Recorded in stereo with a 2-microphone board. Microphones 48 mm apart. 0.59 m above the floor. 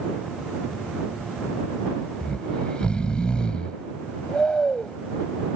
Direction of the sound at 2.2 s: 20° left (ahead or behind).